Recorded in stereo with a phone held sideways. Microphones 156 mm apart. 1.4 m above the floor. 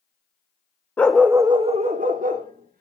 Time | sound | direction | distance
1.0 | a dog barking | 10° left (ahead or behind) | 0.9 m